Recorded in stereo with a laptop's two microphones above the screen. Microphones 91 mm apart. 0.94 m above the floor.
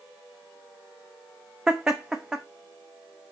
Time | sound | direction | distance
1.7 | laughter | 10° right (ahead or behind) | 0.9 m